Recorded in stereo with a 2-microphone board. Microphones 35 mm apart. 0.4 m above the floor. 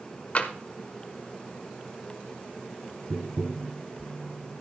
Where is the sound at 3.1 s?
25° right (ahead or behind), 1.8 m.